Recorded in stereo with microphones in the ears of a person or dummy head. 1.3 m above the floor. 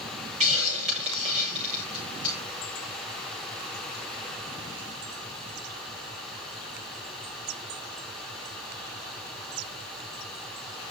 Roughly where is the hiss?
Right.